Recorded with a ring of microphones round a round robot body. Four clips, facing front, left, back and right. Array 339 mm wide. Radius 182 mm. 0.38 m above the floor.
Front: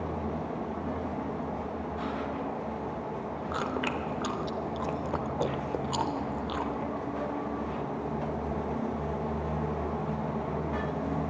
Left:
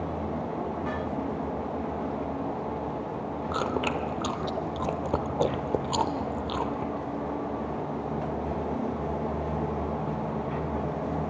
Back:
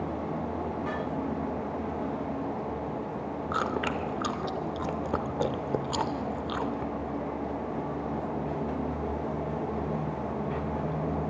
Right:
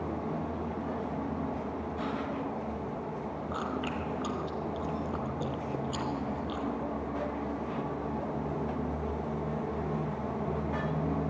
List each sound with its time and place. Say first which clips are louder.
3.5 s chewing: left 7 dB, back 2 dB; 115° left, 0.8 m